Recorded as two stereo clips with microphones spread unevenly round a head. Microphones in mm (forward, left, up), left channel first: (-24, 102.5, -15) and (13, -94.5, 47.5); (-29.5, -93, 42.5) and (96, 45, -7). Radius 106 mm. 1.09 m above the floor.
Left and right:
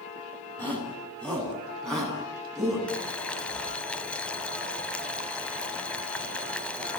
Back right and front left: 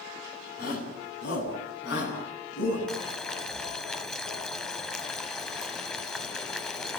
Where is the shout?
Straight behind, 9.5 m; by 2.8 s 170° right, 11.5 m.